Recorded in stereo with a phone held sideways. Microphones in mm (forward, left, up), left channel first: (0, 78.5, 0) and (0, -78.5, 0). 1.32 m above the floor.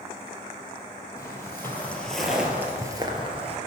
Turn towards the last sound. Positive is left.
turn(degrees=-45)  # may be behind; listen again after turning